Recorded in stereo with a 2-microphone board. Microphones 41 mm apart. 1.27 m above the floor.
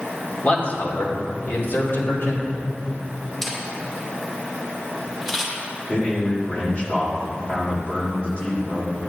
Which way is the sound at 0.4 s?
35° left (ahead or behind).